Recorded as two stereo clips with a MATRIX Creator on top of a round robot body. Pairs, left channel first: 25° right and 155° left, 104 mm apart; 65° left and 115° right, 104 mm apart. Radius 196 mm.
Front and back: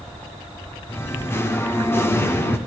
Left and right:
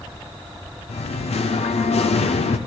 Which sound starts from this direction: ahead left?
Singing, at 0.9 s.